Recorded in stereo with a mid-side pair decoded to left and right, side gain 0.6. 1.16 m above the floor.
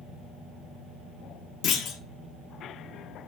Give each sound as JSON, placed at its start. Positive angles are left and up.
{"t": 1.6, "sound": "a clunk", "azimuth_deg": 55, "distance_m": 0.7}